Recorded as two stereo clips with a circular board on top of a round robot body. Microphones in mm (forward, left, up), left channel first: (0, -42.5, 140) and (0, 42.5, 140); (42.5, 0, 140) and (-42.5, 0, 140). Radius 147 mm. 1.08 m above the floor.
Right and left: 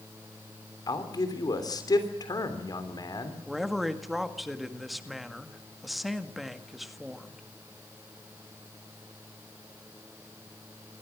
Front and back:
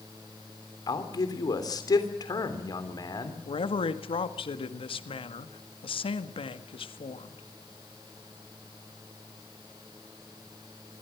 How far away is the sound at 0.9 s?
About 3.5 m.